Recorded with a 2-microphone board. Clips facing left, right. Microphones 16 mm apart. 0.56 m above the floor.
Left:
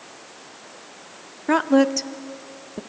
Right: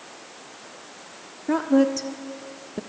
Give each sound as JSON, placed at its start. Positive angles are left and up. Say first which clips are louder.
{"t": 1.5, "sound": "a woman speaking", "louder": "left 2 dB", "side_deg": 50, "distance_m": 1.0}